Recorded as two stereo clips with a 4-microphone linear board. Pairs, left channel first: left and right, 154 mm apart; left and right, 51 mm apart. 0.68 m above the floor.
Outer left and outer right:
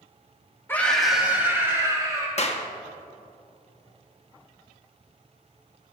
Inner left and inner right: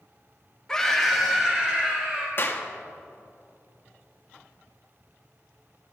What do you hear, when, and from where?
0.7 s a scream: 15° left (ahead or behind), 1.2 m; by 2.3 s 25° right (ahead or behind), 2.5 m
2.4 s a clap: 45° left (ahead or behind), 0.7 m